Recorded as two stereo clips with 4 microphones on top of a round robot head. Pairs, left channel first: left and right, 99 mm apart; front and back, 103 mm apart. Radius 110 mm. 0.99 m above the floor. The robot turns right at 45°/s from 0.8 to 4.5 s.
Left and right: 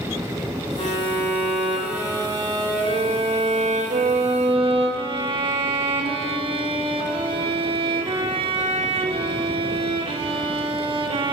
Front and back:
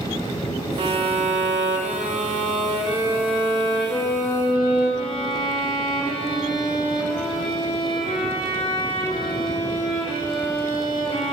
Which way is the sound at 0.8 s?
140° left.